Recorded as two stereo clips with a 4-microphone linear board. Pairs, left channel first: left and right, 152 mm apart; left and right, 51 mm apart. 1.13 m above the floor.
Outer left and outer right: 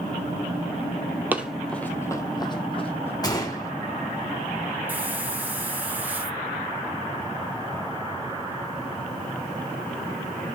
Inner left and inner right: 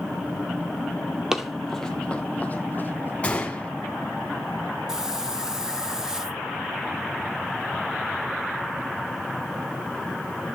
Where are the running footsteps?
10° right (ahead or behind), 1.3 m; by 3.1 s 40° left (ahead or behind), 2.5 m.